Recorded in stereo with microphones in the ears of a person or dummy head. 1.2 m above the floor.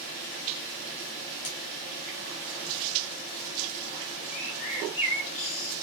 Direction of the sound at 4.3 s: 35° left (ahead or behind).